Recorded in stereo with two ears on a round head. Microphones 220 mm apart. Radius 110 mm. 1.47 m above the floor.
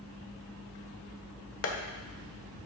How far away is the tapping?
About 1.3 m.